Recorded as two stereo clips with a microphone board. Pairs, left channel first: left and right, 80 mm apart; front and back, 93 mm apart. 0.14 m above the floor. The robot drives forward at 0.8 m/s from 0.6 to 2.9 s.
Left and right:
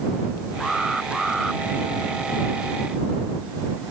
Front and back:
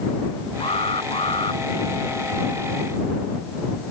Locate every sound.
0.6 s an alarm: straight ahead